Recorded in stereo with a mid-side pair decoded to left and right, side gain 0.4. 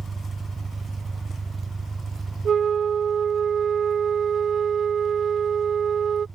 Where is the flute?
60° right.